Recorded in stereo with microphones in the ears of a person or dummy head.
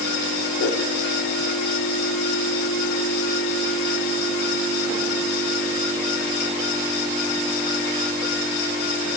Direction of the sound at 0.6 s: 80° left.